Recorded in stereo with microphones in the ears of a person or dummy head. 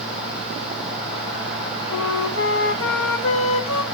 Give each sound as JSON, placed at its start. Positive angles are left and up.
{"t": 1.9, "sound": "a flute", "side_deg": 70, "distance_m": 0.9}